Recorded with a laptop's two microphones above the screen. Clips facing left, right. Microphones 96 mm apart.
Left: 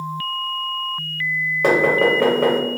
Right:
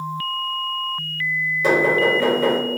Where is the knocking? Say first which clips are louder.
Left 2 dB; 60° left (ahead or behind), 0.8 m.